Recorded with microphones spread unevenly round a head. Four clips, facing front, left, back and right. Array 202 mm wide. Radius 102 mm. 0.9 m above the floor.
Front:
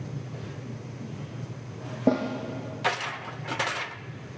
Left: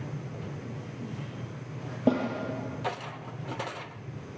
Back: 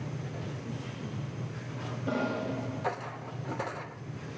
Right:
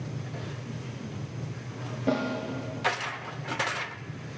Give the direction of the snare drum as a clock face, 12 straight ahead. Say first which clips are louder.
Left 2 dB, front 8 dB; 11 o'clock.